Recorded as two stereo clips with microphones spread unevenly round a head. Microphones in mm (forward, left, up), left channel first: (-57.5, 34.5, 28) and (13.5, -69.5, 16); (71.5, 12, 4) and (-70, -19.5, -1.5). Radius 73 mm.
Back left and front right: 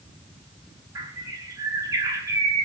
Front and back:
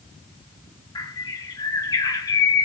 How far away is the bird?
About 1.3 m.